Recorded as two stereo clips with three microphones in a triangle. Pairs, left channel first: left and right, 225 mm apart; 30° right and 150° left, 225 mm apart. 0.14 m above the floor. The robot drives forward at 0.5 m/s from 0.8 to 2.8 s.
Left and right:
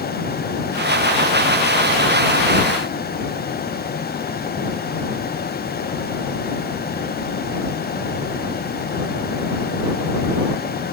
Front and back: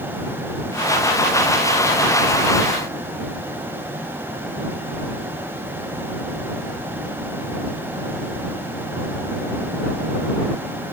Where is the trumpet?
No trumpet in this recording.